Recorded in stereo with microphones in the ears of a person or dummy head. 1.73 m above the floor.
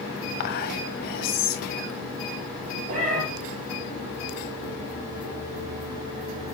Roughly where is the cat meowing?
Right.